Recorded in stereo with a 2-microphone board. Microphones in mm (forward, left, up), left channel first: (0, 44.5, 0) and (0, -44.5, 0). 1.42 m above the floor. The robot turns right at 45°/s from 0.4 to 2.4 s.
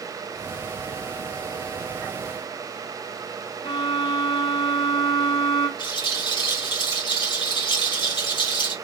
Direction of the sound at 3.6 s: 70° left (ahead or behind).